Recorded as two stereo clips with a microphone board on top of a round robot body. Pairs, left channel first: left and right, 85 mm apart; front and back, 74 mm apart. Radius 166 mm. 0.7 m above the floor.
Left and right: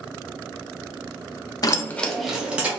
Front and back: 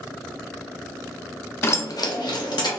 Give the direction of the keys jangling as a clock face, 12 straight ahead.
10 o'clock.